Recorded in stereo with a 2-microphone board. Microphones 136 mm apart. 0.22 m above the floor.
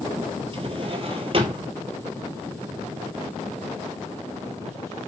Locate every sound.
0.5 s a drawer: 40° right (ahead or behind), 2 m